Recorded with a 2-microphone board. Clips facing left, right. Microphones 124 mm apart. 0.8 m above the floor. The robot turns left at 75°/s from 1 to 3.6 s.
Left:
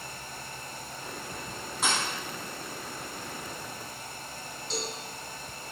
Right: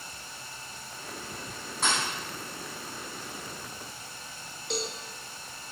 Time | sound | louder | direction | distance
1.8 | a thud | even | centre (ahead or behind) | 1.5 m
4.7 | a cowbell | right 2 dB | 60° right (ahead or behind) | 0.6 m